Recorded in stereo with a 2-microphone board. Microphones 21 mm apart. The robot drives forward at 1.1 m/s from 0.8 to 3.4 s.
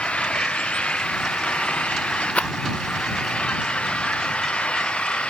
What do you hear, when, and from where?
0.0 s an engine running: 75° left (ahead or behind); by 5.3 s 70° left (ahead or behind)
2.4 s a rattle: 90° left; by 2.5 s 85° left